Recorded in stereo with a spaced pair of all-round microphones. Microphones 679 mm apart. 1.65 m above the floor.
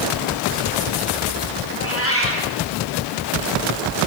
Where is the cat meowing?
20° left (ahead or behind), 7 m.